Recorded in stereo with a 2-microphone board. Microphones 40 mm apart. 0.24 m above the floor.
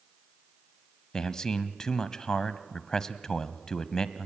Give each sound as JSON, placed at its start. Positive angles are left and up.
{"t": 1.1, "sound": "a man speaking", "side_deg": 15, "distance_m": 1.1}